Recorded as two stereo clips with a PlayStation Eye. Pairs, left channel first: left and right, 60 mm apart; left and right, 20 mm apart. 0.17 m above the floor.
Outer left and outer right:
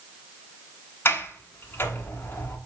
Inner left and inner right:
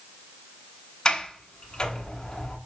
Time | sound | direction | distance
1.1 | a sliding door | 40° left (ahead or behind) | 1.0 m